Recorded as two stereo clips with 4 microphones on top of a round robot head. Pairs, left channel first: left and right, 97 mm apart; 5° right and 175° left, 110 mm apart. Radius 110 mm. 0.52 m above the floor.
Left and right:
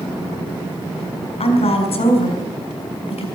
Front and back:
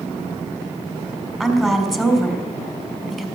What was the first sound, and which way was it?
A woman speaking, 85° left.